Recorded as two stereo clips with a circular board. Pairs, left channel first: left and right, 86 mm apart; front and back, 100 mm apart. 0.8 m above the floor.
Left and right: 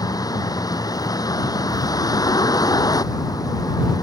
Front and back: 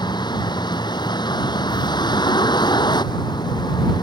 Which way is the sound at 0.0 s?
45° left.